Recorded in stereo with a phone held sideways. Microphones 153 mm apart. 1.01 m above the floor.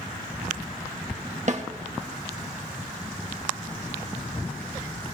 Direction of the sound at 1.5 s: 50° right (ahead or behind).